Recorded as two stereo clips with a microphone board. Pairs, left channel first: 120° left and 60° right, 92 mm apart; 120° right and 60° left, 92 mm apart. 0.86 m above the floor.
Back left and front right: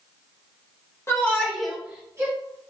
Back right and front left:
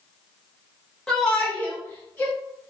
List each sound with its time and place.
1.1 s a shout: 160° left, 1.2 m; by 2.3 s 70° right, 1.2 m